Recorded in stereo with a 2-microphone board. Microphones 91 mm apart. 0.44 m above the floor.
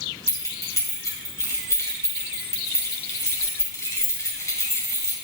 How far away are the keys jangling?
About 1.8 m.